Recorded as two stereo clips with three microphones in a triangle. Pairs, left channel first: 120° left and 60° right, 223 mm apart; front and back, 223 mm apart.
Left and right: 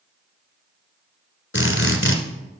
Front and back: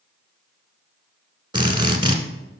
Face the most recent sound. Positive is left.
turn(degrees=115)